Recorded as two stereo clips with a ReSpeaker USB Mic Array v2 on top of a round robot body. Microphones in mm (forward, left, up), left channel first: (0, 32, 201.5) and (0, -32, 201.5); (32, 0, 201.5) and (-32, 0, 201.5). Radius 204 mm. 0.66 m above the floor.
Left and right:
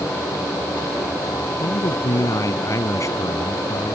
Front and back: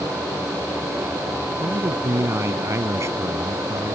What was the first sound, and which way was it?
A man speaking, 125° left.